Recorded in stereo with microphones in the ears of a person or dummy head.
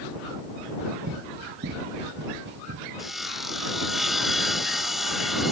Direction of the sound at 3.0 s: Centre (ahead or behind).